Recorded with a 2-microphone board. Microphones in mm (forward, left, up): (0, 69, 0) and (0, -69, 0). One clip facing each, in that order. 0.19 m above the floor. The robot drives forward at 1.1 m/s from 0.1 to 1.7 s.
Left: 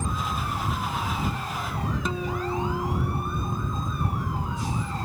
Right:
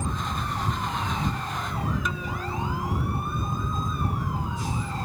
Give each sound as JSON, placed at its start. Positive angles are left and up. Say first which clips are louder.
{"t": 2.0, "sound": "a guitar", "louder": "left 3 dB", "side_deg": 30}